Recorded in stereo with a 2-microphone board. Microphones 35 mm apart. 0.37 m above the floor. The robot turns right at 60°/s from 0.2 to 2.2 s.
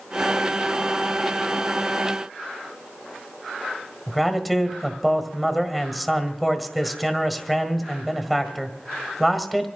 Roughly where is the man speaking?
Centre.